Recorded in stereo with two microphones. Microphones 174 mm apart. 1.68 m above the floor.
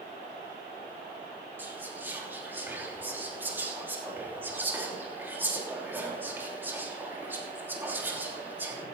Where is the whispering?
10° right (ahead or behind), 3 m.